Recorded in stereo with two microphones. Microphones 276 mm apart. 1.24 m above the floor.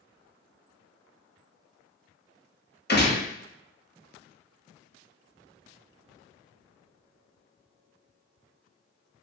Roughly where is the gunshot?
Left.